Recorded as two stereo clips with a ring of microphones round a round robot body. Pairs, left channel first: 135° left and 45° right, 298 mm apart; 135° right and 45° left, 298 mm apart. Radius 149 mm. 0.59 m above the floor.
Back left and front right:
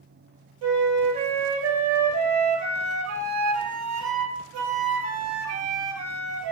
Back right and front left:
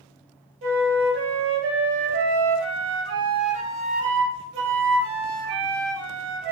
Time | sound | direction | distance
0.6 | a flute | 5° right | 0.6 m